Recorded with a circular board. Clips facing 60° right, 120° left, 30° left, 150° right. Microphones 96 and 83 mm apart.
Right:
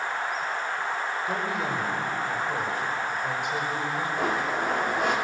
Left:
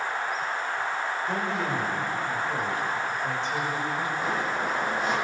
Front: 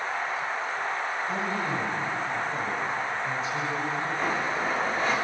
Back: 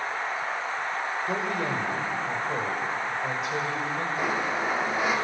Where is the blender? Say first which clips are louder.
Right 1 dB, back 2 dB; 70° right, 4 m.